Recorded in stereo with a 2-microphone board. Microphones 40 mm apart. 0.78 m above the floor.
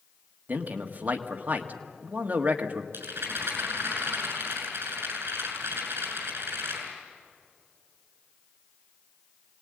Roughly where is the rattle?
Right.